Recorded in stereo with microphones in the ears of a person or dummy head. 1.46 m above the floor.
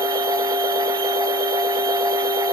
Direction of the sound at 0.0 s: 20° right (ahead or behind).